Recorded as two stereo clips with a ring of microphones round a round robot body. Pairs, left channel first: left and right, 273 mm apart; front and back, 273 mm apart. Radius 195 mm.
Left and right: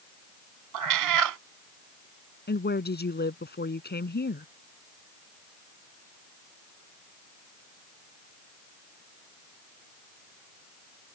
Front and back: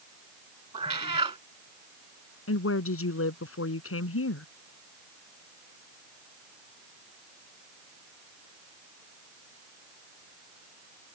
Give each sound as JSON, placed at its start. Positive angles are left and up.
{"t": 0.7, "sound": "a cat meowing", "azimuth_deg": -105}
{"t": 2.5, "sound": "a woman speaking", "azimuth_deg": 35}